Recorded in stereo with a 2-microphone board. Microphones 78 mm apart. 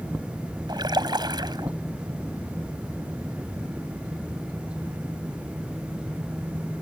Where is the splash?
65° right (ahead or behind).